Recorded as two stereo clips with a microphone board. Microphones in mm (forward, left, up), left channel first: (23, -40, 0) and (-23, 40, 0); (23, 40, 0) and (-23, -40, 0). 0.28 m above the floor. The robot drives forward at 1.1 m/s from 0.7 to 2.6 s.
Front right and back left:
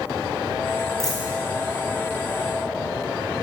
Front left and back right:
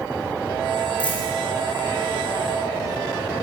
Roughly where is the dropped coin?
Ahead left.